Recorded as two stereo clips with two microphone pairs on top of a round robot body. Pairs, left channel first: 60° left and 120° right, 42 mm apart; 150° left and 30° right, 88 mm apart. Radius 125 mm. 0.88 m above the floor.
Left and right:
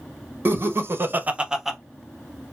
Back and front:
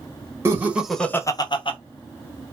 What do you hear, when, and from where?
0.5 s laughter: 95° right, 1.0 m; by 1.8 s 150° left, 0.9 m